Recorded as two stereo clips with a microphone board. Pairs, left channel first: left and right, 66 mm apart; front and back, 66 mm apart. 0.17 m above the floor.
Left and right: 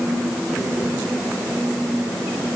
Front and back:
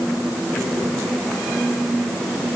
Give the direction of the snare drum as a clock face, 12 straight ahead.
I don't hear a snare drum.